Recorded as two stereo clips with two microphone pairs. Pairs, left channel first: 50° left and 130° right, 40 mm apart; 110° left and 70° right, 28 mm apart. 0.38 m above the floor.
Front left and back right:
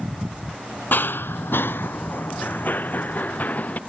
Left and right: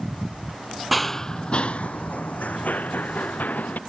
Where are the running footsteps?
20° left; by 3.8 s 95° left.